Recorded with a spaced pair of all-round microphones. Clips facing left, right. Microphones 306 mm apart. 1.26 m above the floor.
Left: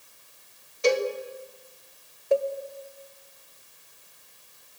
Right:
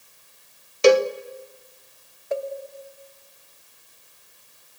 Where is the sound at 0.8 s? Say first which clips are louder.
Right 8 dB; 80° right, 0.7 m.